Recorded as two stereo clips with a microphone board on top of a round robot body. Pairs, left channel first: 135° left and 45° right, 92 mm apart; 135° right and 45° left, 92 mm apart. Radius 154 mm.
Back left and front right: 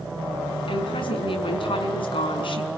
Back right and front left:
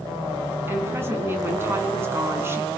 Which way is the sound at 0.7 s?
110° left.